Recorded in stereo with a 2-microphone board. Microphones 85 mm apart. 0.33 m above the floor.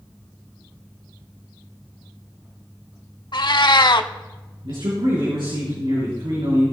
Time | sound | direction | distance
3.3 | a cat meowing | 60° left (ahead or behind) | 0.6 m
4.6 | a man speaking | 70° right (ahead or behind) | 4.5 m